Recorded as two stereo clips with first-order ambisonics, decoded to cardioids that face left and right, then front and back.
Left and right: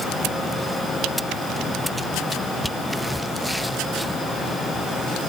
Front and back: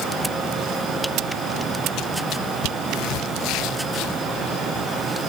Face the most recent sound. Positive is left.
No sound to turn to.